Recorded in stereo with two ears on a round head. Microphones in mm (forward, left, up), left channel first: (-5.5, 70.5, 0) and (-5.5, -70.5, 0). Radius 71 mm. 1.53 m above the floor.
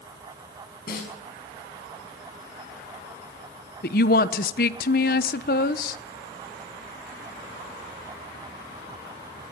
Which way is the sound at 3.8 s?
60° left (ahead or behind).